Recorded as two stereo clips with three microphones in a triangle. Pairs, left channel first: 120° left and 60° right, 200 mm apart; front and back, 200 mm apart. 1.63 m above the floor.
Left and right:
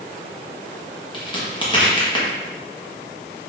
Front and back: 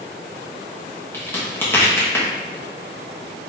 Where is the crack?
70° left, 1.0 m.